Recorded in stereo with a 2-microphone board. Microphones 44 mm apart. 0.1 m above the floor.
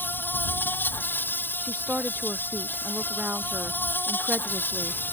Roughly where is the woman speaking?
Right.